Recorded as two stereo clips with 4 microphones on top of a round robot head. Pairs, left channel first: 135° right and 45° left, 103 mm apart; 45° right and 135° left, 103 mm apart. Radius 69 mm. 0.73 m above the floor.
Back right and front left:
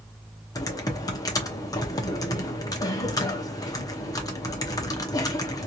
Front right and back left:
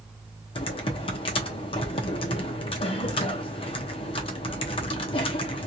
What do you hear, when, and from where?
0.6 s typing on a keyboard: 80° right, 0.9 m